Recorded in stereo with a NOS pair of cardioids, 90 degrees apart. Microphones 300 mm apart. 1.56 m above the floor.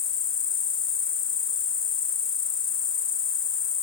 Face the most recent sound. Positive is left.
turn(degrees=40)